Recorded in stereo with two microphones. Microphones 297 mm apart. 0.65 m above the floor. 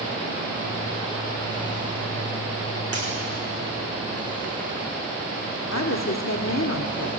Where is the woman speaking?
60° left (ahead or behind), 1.3 m.